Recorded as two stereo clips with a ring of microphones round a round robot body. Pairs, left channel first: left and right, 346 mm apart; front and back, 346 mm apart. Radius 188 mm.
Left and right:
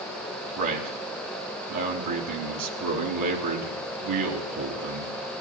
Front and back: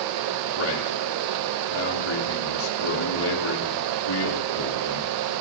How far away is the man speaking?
About 3.5 m.